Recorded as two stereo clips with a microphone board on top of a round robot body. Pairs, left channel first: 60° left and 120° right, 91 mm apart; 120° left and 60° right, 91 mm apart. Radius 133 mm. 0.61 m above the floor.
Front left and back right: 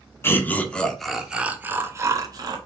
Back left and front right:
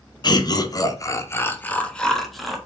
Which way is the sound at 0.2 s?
115° left.